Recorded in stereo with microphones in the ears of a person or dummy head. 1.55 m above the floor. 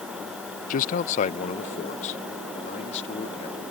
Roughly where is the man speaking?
Left.